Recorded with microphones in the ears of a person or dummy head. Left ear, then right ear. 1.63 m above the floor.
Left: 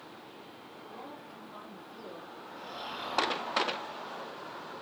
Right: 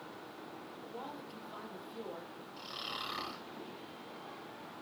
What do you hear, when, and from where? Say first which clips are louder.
0.8 s a woman speaking: even; 15° right (ahead or behind), 3.5 m
2.6 s snoring: left 1 dB; 30° right (ahead or behind), 5.5 m